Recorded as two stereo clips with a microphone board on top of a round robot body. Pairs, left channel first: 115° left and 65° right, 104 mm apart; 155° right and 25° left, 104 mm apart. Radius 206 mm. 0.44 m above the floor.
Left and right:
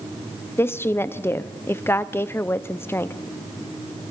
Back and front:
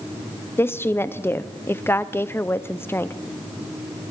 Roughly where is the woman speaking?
Behind left.